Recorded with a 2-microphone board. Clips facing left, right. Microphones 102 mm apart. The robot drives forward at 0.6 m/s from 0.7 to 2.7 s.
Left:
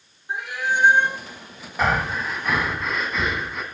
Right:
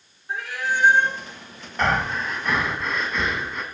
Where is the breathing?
5° left (ahead or behind), 0.7 m.